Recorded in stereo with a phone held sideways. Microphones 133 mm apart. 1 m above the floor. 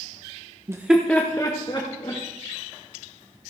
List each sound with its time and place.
0.7 s laughter: 25° right (ahead or behind), 0.8 m; by 2.2 s 40° left (ahead or behind), 2.0 m